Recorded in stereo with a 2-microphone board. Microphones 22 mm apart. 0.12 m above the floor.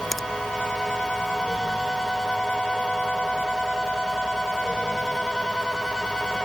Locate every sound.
0.1 s a finger snap: 10° left (ahead or behind)